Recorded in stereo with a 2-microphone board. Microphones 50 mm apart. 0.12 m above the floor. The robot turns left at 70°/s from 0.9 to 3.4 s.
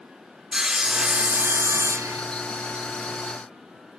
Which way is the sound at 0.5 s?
15° right.